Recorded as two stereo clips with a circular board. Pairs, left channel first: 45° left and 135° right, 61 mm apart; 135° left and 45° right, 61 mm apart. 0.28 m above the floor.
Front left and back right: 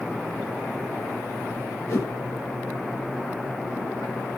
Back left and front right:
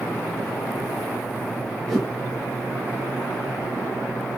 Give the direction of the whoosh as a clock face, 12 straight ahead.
10 o'clock.